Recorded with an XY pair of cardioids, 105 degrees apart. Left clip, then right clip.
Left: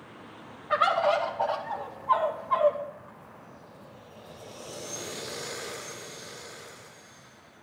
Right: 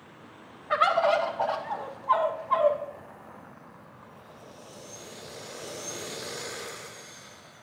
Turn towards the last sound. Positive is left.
turn(degrees=-10)